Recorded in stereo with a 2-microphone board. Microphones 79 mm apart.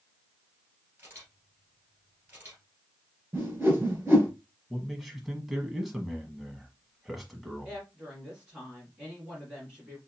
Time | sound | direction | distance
1.0 | a camera shutter | 25° right (ahead or behind) | 2.5 m
3.3 | a whoosh | 30° right (ahead or behind) | 2 m
4.7 | a man speaking | 5° right (ahead or behind) | 1.0 m
7.7 | a woman speaking | 15° right (ahead or behind) | 2.5 m